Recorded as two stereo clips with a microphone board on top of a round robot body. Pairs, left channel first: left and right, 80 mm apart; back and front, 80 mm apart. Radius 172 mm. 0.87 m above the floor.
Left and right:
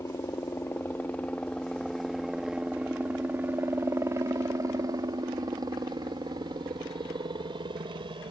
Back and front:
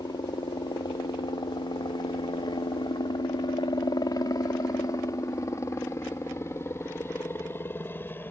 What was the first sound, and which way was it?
A helicopter, 145° left.